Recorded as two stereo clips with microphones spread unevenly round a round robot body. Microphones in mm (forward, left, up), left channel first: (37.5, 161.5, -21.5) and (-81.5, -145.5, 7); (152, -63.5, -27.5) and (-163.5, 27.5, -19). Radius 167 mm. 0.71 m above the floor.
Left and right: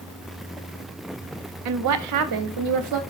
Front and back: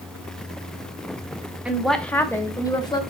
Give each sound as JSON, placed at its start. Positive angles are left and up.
{"t": 1.6, "sound": "a woman speaking", "azimuth_deg": -110, "distance_m": 0.8}